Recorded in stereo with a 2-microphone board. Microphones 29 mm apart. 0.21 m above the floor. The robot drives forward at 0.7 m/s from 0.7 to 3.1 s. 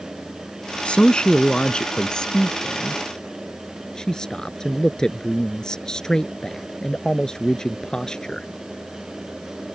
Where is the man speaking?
40° left (ahead or behind); by 8.5 s 25° left (ahead or behind).